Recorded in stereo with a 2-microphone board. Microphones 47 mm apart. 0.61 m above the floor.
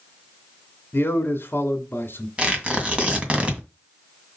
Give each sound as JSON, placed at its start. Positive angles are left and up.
{"t": 0.9, "sound": "a man speaking", "side_deg": 45, "distance_m": 1.6}
{"t": 2.4, "sound": "tearing paper", "side_deg": -25, "distance_m": 2.0}